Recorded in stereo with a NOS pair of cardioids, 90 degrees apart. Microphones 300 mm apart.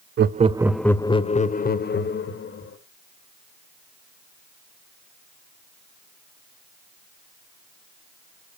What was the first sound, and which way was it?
Laughter, 40° right.